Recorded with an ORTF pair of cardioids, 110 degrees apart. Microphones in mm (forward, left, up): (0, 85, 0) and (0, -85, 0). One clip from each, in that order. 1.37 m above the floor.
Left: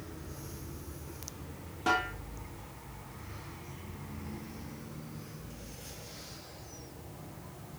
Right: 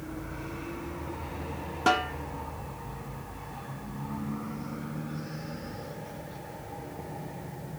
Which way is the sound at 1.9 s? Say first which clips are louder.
Right 4 dB; 40° right.